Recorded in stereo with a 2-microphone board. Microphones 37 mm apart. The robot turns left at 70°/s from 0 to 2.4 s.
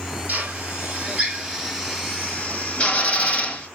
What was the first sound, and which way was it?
A drill, 55° right (ahead or behind).